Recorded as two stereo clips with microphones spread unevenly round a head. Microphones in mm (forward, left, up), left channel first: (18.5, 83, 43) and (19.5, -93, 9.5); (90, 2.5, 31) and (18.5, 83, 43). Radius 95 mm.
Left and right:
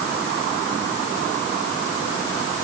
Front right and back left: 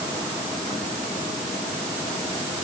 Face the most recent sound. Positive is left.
No sound to turn to.